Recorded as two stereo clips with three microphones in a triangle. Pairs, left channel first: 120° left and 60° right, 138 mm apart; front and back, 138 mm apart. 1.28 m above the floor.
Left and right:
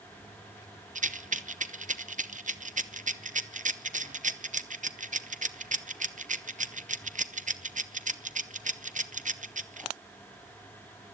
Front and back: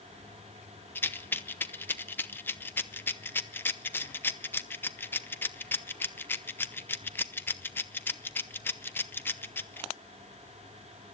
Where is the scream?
No scream in this recording.